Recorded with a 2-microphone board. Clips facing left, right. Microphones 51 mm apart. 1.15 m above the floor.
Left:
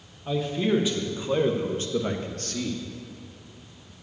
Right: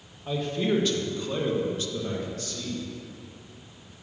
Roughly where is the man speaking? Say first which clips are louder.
Left 2 dB; centre.